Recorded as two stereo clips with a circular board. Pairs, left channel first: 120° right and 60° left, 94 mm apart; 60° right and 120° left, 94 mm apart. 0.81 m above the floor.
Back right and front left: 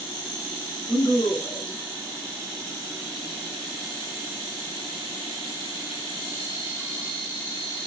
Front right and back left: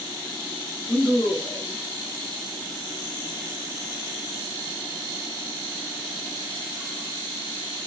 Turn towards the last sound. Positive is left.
turn(degrees=-135)